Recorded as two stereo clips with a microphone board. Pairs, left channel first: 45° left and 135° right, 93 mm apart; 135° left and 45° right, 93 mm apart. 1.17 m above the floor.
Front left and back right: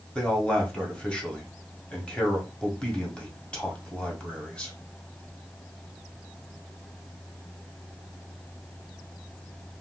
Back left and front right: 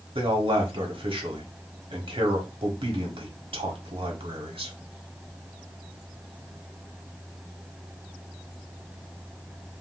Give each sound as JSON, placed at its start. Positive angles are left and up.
{"t": 0.1, "sound": "a man speaking", "azimuth_deg": -35, "distance_m": 1.1}